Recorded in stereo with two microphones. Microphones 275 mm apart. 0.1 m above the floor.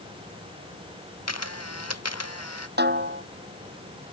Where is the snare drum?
40° right (ahead or behind).